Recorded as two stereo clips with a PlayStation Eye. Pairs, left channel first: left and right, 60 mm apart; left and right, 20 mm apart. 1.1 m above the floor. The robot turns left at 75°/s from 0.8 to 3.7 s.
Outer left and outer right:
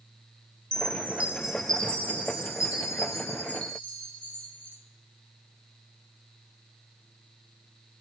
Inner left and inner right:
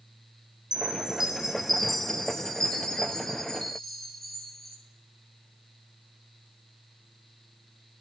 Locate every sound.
0.7 s a chime: 115° right, 1.0 m; by 4.8 s 25° left, 1.0 m